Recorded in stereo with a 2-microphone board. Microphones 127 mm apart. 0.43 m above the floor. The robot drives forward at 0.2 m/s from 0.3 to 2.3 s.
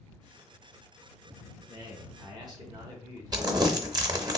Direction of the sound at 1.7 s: 35° right (ahead or behind).